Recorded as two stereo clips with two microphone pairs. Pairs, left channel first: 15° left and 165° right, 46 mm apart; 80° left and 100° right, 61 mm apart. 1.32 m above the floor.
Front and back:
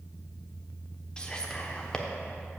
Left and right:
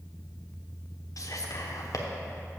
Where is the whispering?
85° left, 0.9 m.